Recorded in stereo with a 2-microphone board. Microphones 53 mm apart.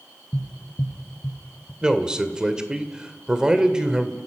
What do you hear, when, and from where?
0.3 s tapping: 85° left, 4 m
1.8 s a man speaking: 15° right (ahead or behind), 1.9 m